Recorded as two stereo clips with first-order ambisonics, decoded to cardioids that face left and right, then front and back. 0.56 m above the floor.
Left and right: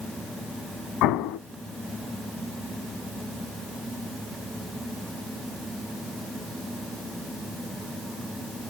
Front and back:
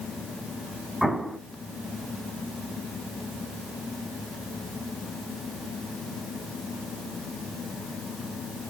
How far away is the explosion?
About 0.6 m.